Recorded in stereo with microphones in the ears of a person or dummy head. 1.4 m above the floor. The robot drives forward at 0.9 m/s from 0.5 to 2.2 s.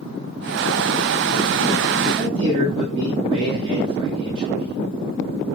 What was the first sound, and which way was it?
A man speaking, 35° right (ahead or behind).